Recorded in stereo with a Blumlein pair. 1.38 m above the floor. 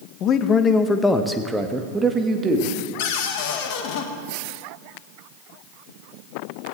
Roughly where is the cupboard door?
Ahead left.